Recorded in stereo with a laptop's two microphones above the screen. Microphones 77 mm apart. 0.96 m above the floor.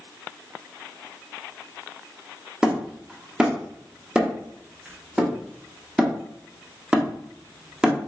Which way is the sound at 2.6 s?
10° right (ahead or behind).